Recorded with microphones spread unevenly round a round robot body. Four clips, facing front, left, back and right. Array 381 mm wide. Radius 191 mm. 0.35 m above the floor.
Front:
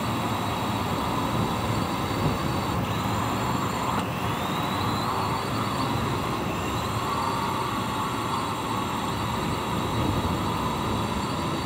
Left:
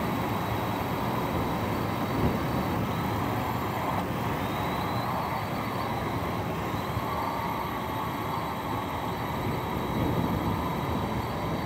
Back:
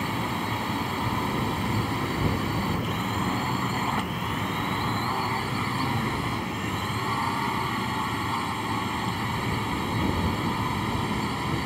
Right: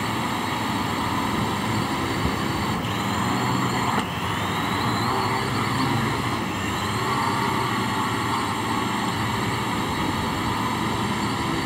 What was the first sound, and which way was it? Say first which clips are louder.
A drone: right 3 dB, front 2 dB; 100° right.